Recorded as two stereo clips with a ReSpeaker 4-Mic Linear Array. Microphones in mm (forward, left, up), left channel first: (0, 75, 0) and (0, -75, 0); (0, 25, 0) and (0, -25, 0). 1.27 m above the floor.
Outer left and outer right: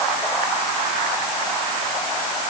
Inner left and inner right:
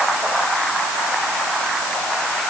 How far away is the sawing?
No sawing in this recording.